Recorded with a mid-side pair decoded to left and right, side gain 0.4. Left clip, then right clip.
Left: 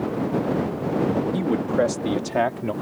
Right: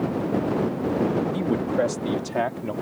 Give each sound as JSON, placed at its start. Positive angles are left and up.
{"t": 1.3, "sound": "a man speaking", "azimuth_deg": 10}